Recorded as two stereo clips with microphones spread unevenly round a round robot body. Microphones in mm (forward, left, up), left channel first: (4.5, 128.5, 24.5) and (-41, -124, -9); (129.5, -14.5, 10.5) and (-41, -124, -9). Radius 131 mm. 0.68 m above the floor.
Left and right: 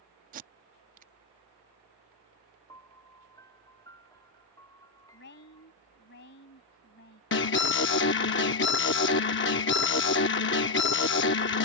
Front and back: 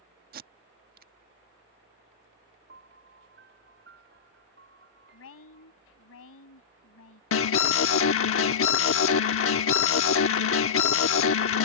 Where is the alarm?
30° left.